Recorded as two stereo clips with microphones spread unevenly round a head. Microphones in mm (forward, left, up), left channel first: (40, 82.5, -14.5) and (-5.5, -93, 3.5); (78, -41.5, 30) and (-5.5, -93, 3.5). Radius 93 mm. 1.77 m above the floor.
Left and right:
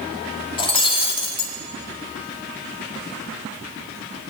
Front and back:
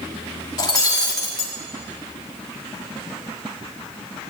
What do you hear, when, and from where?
0.6 s breaking glass: 15° left, 1.8 m